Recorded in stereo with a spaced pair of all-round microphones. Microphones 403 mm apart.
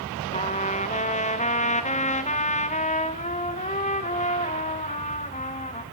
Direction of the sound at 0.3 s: 20° left (ahead or behind).